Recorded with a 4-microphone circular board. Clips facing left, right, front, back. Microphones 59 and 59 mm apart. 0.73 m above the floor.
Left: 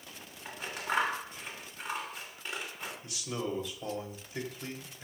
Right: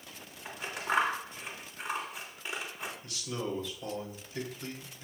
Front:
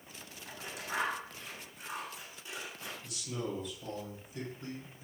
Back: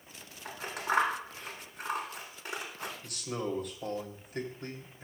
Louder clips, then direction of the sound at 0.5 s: Right 2 dB, back 9 dB; 175° right.